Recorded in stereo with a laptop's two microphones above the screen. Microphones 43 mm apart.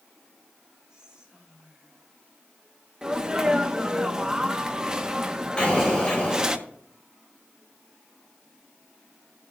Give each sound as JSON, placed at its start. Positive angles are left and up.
{"t": 0.9, "sound": "whispering", "side_deg": -15, "distance_m": 3.5}
{"t": 3.0, "sound": "a sneeze", "side_deg": -15, "distance_m": 1.4}
{"t": 5.6, "sound": "an explosion", "side_deg": 25, "distance_m": 4.5}